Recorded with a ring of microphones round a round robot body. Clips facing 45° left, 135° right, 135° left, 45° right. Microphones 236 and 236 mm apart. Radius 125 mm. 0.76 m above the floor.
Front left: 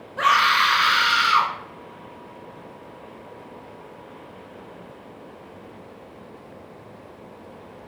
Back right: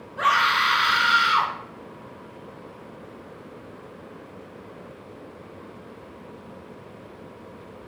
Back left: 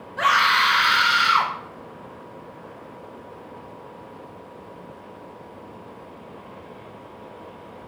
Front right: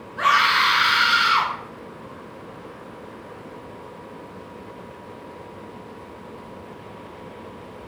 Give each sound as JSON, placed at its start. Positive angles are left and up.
{"t": 0.2, "sound": "a scream", "azimuth_deg": 100, "distance_m": 1.4}